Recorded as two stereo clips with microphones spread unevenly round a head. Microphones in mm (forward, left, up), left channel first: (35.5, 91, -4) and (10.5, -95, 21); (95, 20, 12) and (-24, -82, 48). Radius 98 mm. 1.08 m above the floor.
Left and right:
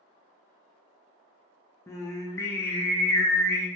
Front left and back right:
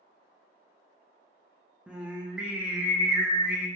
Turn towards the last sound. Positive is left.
turn(degrees=115)